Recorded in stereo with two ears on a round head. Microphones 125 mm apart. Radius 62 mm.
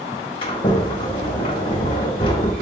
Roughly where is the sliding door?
Left.